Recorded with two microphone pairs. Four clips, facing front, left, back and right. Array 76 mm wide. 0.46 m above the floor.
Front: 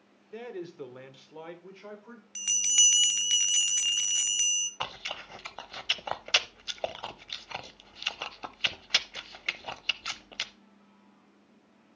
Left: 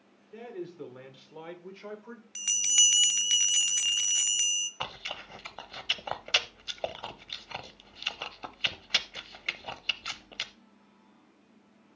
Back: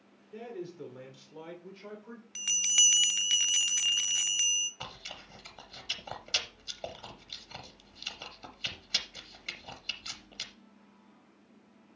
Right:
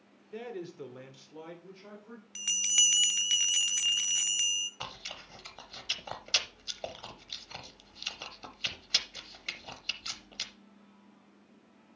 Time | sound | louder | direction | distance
0.3 | a man speaking | even, front 2 dB | 15° right | 1.6 m
2.4 | a bell | left 2 dB, front 1 dB | 145° left | 0.5 m
4.8 | chewing | left 5 dB, front 8 dB | 30° left | 0.6 m